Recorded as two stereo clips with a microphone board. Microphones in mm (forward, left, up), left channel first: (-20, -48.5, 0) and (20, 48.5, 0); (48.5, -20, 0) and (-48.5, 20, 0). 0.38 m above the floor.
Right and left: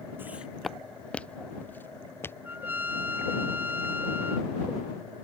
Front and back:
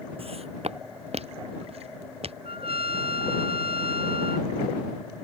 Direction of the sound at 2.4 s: 140° left.